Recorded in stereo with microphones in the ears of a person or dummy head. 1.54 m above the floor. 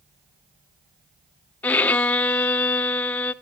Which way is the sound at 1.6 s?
10° left (ahead or behind).